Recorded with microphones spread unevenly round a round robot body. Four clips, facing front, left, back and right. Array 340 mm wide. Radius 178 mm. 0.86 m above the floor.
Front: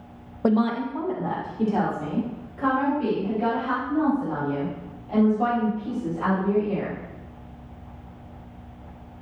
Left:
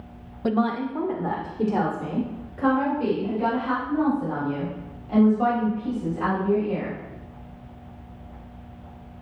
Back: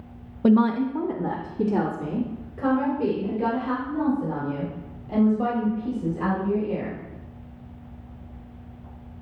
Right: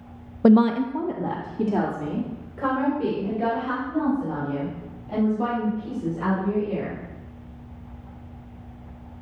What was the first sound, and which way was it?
A woman speaking, 60° right.